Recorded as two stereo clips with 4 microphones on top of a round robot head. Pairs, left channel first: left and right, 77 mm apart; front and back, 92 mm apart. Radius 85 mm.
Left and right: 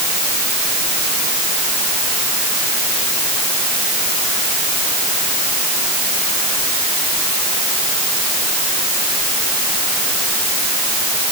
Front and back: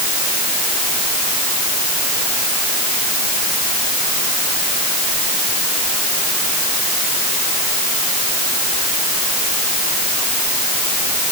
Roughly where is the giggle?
I don't hear a giggle.